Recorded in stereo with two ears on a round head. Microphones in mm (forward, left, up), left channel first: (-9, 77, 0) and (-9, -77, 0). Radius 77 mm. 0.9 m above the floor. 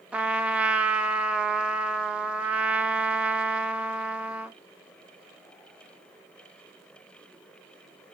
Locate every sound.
0.1 s a trumpet: 5° right (ahead or behind), 0.5 m